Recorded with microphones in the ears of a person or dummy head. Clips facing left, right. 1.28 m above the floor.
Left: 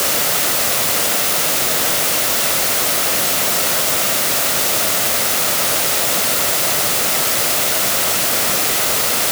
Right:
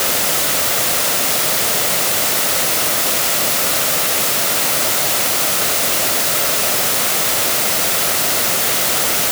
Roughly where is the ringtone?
No ringtone in this recording.